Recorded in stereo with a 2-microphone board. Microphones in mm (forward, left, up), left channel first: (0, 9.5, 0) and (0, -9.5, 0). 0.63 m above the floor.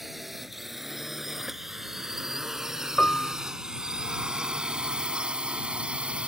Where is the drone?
5° right (ahead or behind); by 6.3 s 75° right (ahead or behind).